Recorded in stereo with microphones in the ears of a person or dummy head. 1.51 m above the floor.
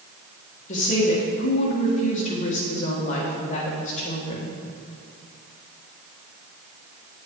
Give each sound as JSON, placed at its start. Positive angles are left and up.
{"t": 0.7, "sound": "a woman speaking", "side_deg": 40, "distance_m": 1.5}